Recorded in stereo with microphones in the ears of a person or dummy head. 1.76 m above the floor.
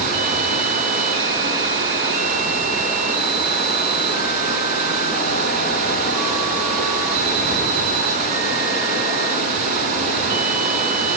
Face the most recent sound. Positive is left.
turn(degrees=-40)  # may be behind; listen again after turning